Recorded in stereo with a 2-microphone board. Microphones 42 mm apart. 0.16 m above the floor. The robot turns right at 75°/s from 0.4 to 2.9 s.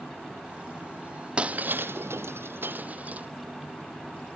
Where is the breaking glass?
25° right (ahead or behind), 0.8 m; by 3.3 s 40° right (ahead or behind), 0.8 m.